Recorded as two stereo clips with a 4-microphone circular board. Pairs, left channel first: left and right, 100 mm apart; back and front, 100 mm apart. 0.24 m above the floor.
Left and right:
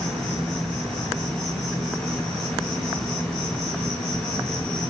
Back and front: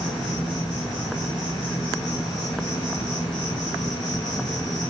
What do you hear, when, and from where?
0.0 s an insect: 170° left, 1.5 m